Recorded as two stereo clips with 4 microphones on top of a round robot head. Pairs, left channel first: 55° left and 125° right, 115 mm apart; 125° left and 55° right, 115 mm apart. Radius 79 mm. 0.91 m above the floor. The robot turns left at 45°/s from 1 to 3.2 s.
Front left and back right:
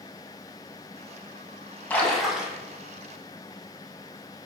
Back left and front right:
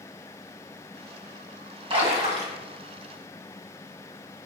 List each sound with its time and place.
1.9 s a splash: 20° right, 1.9 m; by 2.6 s 50° right, 1.9 m